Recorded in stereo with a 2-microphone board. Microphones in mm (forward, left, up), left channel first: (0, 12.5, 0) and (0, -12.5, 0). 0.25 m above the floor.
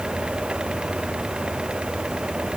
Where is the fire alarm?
I don't hear a fire alarm.